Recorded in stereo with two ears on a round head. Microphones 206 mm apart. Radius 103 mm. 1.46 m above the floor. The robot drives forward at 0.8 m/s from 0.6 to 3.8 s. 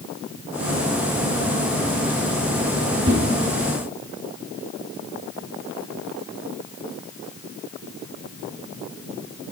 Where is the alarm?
I don't hear an alarm.